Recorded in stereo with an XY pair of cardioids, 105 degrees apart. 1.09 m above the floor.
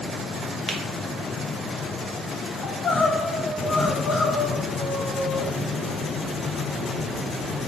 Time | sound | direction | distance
0.7 | a finger snap | straight ahead | 0.7 m
2.6 | crying | 50° left | 0.9 m